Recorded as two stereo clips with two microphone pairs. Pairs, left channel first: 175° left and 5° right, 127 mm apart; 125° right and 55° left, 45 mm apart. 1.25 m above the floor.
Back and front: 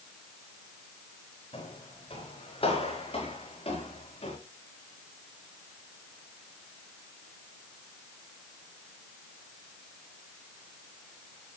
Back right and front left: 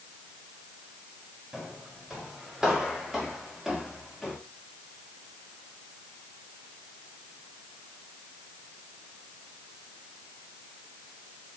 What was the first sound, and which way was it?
Footsteps, 130° left.